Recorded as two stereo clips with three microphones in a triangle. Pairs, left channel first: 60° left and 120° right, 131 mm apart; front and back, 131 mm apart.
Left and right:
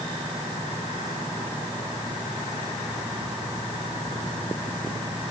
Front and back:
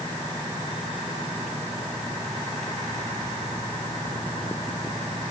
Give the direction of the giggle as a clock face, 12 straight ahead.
No giggle in this recording.